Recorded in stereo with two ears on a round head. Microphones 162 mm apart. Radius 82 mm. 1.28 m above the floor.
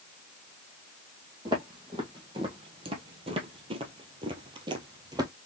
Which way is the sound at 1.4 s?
25° right (ahead or behind).